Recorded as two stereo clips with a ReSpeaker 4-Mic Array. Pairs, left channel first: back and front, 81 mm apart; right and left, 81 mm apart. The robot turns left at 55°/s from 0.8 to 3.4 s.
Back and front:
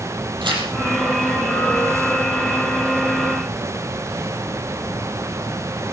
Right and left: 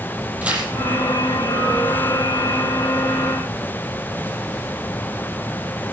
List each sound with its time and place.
0.4 s tearing paper: 20° left, 5 m